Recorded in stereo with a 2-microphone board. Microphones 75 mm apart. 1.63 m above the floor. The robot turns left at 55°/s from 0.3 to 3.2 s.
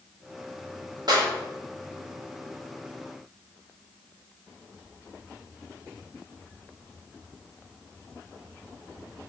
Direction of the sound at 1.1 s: 65° right (ahead or behind).